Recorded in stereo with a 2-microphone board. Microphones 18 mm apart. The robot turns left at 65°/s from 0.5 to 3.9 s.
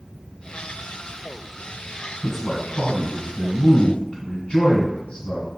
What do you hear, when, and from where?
2.2 s a man speaking: 165° right, 1.5 m; by 5.5 s 85° left, 1.5 m